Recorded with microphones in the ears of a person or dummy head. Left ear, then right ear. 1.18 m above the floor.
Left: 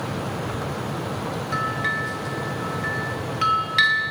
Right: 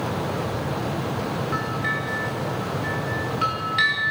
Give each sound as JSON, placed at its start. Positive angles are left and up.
{"t": 1.5, "sound": "a bell", "side_deg": 20, "distance_m": 1.9}